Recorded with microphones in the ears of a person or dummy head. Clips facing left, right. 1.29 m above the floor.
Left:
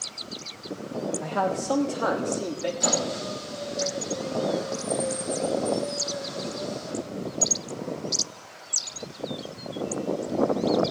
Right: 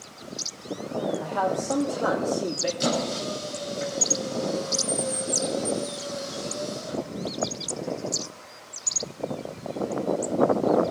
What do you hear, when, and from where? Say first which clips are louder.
1.2 s a man speaking: even; 25° left (ahead or behind), 0.6 m; by 2.7 s 10° right (ahead or behind), 1.2 m
2.8 s a squeak: right 2 dB; 55° right (ahead or behind), 3.5 m